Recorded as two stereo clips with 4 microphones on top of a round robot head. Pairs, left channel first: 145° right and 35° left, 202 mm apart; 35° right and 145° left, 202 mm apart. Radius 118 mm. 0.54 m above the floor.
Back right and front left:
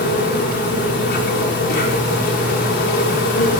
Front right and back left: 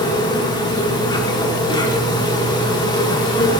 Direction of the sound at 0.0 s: 105° right.